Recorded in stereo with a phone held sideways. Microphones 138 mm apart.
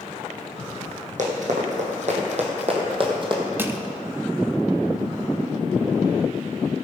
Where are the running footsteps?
65° right (ahead or behind), 2.5 m; by 3.5 s 35° right (ahead or behind), 2.0 m.